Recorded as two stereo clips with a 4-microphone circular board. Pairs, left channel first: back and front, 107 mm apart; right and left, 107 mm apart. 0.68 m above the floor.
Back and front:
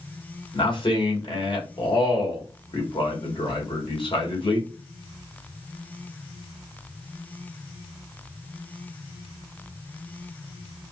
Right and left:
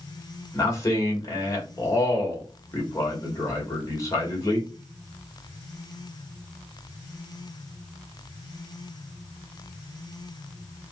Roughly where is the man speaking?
Behind right.